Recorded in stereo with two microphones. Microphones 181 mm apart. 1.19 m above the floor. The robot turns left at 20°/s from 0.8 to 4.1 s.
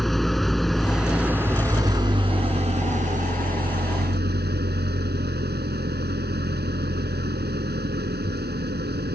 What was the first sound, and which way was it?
An engine running, straight ahead.